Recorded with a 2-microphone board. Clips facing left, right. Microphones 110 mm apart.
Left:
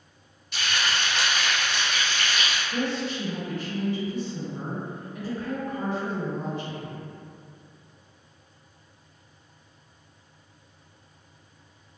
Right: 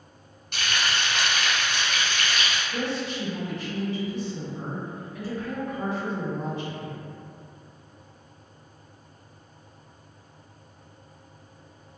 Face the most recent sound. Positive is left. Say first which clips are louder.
# left 3 dB
turn(degrees=40)  # may be behind; listen again after turning